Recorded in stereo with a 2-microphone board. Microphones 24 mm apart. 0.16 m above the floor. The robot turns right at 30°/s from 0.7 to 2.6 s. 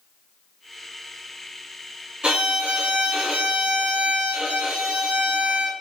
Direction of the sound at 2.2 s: 40° right (ahead or behind).